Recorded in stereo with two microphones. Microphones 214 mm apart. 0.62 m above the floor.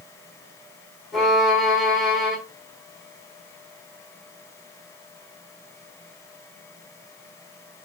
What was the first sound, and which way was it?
A violin, centre (ahead or behind).